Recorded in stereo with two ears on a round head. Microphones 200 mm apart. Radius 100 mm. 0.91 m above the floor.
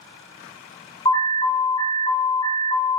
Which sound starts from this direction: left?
An alarm, at 1.1 s.